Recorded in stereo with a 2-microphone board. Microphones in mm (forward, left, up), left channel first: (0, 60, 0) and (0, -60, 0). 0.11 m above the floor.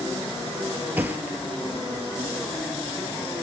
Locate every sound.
1.0 s a thud: 15° right (ahead or behind), 0.7 m